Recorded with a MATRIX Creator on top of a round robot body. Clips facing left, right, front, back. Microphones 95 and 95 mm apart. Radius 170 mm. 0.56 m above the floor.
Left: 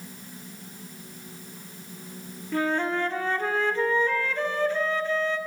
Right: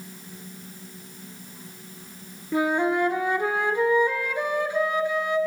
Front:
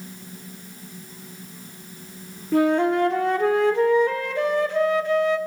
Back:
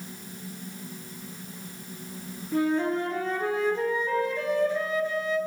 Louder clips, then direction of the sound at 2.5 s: Right 3 dB, front 6 dB; 15° right.